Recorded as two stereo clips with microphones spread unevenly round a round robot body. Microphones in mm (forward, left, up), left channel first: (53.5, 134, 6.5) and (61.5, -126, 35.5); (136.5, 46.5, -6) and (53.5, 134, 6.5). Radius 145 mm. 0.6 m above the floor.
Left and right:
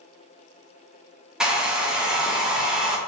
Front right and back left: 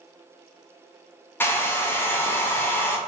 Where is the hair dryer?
5° left, 0.5 m.